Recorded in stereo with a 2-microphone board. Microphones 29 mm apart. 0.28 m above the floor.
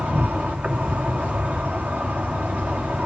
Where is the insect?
80° right, 2 m.